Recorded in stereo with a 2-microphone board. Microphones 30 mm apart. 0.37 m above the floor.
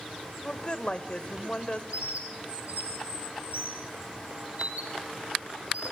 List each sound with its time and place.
0.4 s a woman speaking: 35° left (ahead or behind), 1.3 m
1.9 s a bird: 55° right (ahead or behind), 5.5 m